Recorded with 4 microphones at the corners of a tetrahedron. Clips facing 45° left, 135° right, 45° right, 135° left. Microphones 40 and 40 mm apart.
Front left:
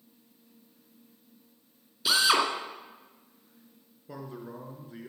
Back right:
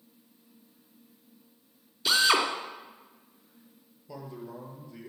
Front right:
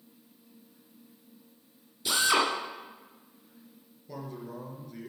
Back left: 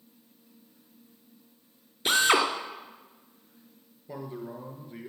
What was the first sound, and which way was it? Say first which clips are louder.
A drill: even, back left 3 dB; 130° left.